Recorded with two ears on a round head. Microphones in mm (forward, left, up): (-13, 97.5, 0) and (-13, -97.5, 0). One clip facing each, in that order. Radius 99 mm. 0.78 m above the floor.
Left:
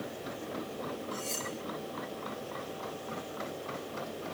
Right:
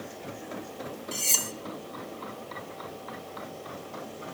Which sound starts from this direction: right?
Cutlery clinking, at 1.1 s.